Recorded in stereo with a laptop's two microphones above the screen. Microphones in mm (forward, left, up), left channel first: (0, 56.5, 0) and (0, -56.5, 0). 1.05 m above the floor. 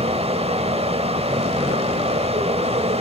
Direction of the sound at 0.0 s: 65° right (ahead or behind).